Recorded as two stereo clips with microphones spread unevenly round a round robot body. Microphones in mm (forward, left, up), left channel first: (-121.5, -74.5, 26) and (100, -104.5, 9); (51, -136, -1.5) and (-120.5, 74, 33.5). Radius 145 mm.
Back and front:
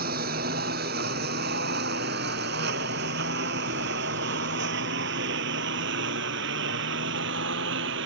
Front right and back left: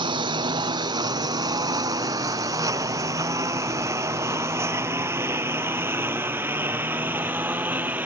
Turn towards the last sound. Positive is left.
turn(degrees=45)